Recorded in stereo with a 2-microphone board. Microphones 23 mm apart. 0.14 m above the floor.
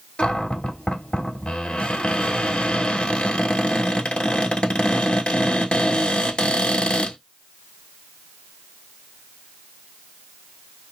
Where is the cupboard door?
55° left (ahead or behind), 1.0 m.